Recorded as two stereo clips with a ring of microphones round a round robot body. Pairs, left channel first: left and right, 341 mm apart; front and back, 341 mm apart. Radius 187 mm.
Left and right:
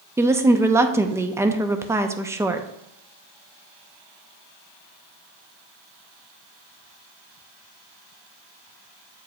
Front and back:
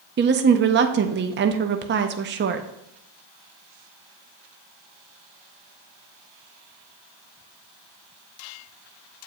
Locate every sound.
0.2 s a woman speaking: 165° right, 0.5 m